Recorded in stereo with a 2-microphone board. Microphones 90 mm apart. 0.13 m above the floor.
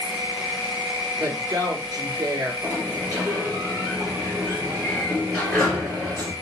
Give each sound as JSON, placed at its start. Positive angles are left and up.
{"t": 0.0, "sound": "an insect", "side_deg": -5, "distance_m": 1.2}
{"t": 1.2, "sound": "a woman speaking", "side_deg": -45, "distance_m": 1.7}
{"t": 2.6, "sound": "a sliding door", "side_deg": 15, "distance_m": 2.5}